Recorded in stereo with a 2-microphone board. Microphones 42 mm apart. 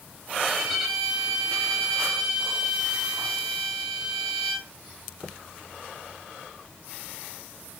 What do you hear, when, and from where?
0.4 s a violin: 5° right (ahead or behind), 3.5 m